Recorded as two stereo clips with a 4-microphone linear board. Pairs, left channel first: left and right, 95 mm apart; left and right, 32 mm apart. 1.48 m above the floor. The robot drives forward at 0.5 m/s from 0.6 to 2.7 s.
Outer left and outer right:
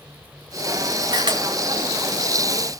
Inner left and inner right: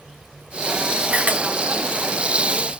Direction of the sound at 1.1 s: 50° right (ahead or behind).